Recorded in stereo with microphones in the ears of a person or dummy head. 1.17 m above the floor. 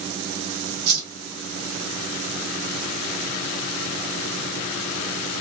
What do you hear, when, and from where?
0.9 s a whoosh: 65° right (ahead or behind), 1.2 m